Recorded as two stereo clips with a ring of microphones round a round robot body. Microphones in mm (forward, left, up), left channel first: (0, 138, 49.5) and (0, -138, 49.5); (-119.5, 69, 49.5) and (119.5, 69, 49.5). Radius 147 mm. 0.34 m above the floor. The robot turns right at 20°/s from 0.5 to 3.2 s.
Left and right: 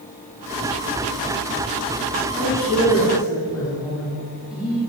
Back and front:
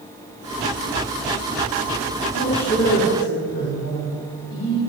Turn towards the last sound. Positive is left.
turn(degrees=-175)